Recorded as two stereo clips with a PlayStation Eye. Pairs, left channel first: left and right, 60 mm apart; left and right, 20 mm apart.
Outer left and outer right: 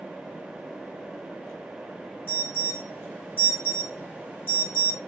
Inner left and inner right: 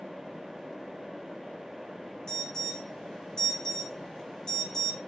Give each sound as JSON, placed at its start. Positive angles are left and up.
{"t": 2.3, "sound": "an alarm", "side_deg": 35, "distance_m": 1.5}